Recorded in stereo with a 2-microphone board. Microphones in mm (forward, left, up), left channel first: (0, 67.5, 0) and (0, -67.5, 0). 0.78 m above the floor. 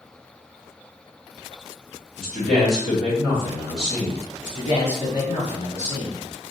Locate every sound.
2.2 s a man speaking: 5° right (ahead or behind), 1.7 m
4.4 s a man speaking: 45° left (ahead or behind), 1.8 m